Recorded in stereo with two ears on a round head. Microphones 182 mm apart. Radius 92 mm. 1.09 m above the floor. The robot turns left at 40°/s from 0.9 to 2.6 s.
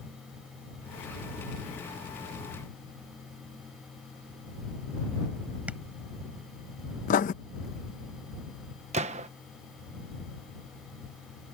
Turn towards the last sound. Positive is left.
turn(degrees=-35)  # may be behind; listen again after turning